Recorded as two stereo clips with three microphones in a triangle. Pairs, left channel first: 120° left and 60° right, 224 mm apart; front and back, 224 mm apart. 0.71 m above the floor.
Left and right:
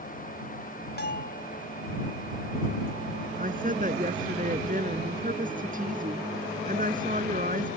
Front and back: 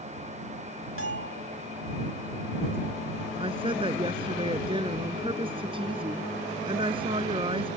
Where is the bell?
165° left.